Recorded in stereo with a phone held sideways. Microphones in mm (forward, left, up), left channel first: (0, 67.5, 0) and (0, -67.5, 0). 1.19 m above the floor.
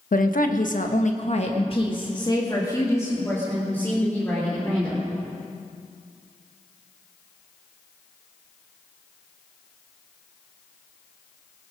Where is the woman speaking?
80° left, 1.2 m; by 5.0 s 10° left (ahead or behind), 3.5 m.